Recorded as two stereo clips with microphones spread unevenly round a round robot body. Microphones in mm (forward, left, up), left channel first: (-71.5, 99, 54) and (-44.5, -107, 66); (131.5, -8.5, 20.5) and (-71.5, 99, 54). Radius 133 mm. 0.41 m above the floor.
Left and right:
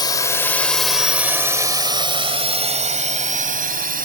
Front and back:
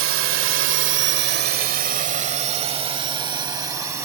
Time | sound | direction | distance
0.0 | a drone | 160° left | ?